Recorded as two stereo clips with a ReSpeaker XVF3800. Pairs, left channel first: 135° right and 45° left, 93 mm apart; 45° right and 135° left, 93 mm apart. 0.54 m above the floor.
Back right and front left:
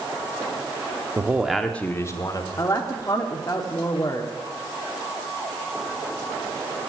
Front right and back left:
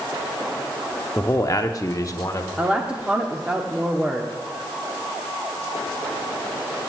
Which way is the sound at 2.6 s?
155° right.